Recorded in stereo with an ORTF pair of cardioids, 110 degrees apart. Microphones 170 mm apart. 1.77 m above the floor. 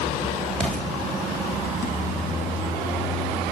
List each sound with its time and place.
0.6 s an explosion: 5° left, 5 m